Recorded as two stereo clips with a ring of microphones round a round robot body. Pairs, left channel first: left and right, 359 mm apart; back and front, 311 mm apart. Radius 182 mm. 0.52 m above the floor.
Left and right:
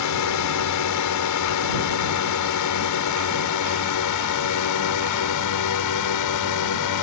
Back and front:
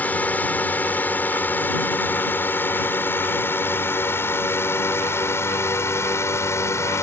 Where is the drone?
95° left; by 7.0 s 100° left.